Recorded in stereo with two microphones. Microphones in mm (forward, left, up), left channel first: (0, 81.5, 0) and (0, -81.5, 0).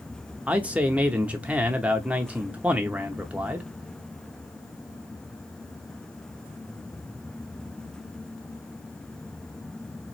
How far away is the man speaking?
About 0.7 m.